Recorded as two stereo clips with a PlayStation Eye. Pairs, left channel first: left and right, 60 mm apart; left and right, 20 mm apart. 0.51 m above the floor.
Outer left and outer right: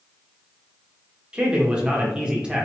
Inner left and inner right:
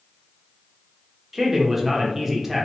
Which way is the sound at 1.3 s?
15° right (ahead or behind).